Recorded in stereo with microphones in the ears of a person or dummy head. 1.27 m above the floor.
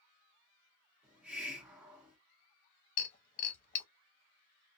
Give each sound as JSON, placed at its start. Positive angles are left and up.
{"t": 1.0, "sound": "a hiss", "side_deg": 0, "distance_m": 0.8}
{"t": 3.0, "sound": "breaking glass", "side_deg": 40, "distance_m": 0.9}